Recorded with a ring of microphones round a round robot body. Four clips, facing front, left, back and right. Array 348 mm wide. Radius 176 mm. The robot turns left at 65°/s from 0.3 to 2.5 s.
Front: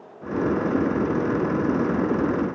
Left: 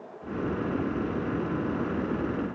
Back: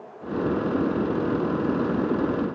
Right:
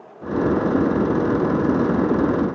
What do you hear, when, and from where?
Only background noise.